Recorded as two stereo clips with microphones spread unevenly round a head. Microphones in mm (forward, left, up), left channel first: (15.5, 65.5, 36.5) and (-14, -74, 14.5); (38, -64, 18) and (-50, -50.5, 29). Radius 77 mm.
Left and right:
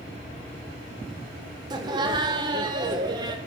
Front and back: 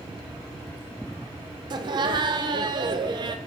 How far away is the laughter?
About 0.8 m.